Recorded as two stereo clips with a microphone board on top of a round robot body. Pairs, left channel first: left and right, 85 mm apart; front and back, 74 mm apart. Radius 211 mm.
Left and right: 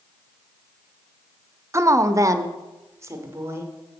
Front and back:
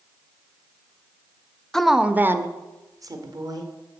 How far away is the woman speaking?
About 0.8 m.